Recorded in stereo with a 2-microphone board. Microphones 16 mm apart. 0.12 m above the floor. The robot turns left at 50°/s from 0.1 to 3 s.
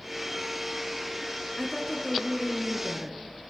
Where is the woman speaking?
5° left (ahead or behind), 1.2 m; by 3.2 s 20° right (ahead or behind), 1.2 m.